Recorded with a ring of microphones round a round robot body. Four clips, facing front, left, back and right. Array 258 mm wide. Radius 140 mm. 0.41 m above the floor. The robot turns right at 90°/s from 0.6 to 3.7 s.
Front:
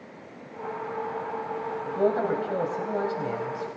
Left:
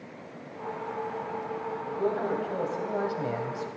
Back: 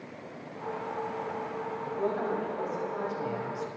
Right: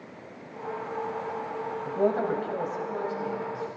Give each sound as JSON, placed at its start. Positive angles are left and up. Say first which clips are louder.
{"t": 1.9, "sound": "a man speaking", "louder": "right 4 dB, front 7 dB", "azimuth_deg": -65, "distance_m": 2.5}